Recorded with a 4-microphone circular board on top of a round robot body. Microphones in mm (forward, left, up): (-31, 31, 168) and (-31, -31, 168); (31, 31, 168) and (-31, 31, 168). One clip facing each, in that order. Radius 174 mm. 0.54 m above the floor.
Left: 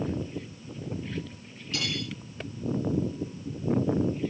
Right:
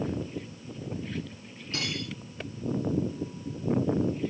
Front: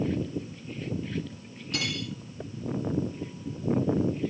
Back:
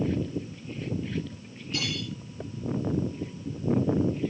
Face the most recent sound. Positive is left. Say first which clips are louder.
# left 1 dB, even
turn(degrees=-35)